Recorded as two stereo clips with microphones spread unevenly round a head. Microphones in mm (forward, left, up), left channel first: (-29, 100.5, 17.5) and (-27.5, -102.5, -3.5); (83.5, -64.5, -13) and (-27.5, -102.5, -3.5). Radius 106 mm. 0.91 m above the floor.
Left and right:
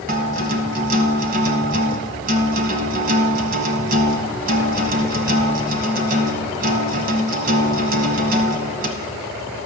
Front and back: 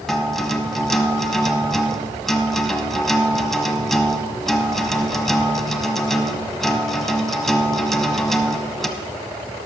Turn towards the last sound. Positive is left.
turn(degrees=-70)